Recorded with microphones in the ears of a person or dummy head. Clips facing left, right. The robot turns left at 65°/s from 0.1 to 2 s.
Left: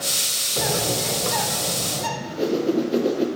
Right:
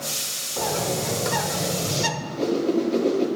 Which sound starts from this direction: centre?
A whoosh, at 2.2 s.